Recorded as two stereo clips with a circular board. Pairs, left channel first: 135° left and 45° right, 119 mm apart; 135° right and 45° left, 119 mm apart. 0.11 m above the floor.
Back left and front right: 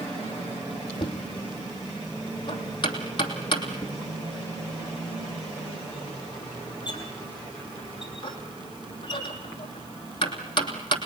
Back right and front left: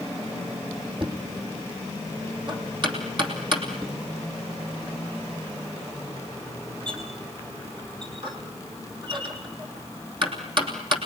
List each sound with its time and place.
1.0 s knocking: 90° left, 3 m